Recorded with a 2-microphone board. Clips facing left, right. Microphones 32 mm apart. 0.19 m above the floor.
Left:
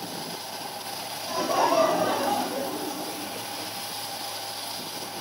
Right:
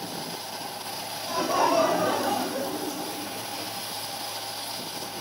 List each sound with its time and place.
1.3 s laughter: centre (ahead or behind), 1.7 m; by 3.7 s 30° left (ahead or behind), 2.0 m